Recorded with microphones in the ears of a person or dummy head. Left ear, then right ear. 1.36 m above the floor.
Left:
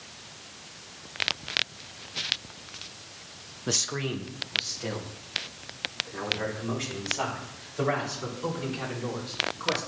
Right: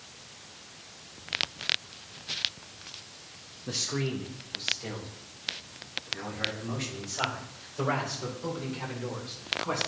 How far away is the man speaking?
About 0.7 m.